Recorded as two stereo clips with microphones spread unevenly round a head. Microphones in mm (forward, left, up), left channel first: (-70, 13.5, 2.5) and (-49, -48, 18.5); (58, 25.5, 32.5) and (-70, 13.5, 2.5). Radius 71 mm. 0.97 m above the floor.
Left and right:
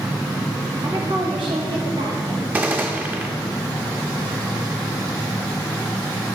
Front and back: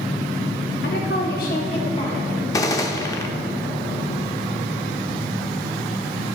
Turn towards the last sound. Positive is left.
turn(degrees=-30)